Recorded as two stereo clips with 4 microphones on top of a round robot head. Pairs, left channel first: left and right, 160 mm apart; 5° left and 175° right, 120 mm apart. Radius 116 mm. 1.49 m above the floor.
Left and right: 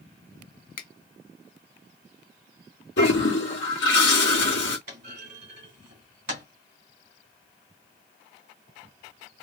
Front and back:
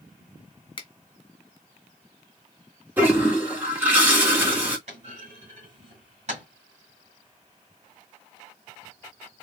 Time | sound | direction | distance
0.8 | a finger snap | 55° left | 1.1 m
3.0 | a toilet flushing | 115° left | 1.7 m
4.9 | a clunk | 125° right | 1.7 m